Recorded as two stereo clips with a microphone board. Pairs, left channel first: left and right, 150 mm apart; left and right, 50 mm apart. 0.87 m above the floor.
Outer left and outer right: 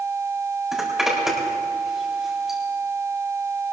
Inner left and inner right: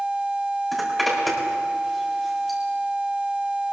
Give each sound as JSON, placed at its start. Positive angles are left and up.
{"t": 0.7, "sound": "a zipper", "side_deg": -5, "distance_m": 3.5}